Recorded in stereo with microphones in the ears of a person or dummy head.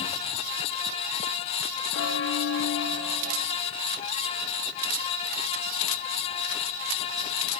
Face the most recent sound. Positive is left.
turn(degrees=75)  # may be behind; listen again after turning